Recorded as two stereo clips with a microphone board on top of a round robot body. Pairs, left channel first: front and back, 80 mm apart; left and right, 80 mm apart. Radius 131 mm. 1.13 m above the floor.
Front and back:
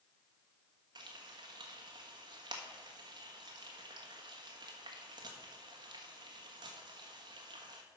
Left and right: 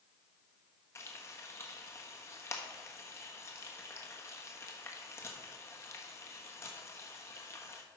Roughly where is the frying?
Behind left.